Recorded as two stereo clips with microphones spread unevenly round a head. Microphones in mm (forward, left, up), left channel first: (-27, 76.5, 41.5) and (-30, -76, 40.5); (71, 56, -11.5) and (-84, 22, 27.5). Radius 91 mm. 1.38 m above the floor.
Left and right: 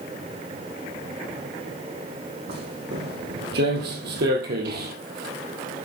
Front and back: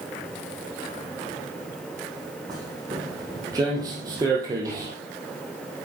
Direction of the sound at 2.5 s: 105° right.